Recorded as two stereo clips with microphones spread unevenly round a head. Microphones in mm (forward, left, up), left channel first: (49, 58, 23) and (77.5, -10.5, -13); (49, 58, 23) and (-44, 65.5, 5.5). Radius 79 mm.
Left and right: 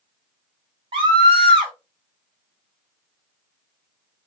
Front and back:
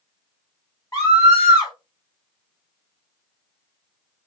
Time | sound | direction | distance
0.9 | a scream | 75° right | 2.5 m